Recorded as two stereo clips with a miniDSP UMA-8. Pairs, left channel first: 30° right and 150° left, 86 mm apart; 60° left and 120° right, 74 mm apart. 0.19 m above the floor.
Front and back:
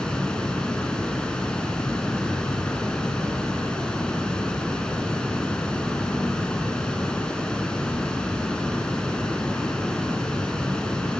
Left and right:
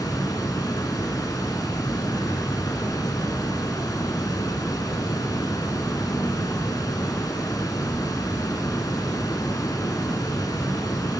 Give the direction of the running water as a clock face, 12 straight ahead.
10 o'clock.